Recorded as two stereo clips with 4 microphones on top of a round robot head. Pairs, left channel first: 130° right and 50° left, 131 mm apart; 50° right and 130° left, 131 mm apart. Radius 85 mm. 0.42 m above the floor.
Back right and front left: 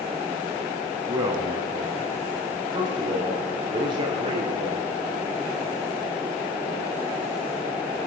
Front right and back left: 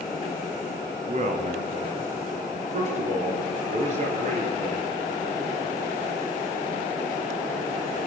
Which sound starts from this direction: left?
A man speaking, at 1.1 s.